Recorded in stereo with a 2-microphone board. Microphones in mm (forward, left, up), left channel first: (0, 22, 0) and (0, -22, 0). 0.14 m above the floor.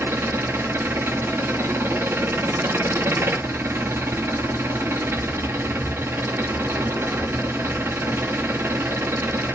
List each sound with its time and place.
0.0 s an engine running: 65° right (ahead or behind), 0.9 m